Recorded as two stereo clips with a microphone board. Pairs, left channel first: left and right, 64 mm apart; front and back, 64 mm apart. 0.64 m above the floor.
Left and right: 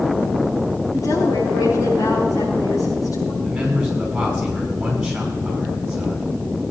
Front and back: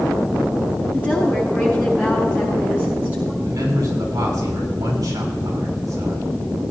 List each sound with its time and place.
0.9 s a woman speaking: 110° left, 7.5 m
3.4 s a man speaking: 170° right, 6.5 m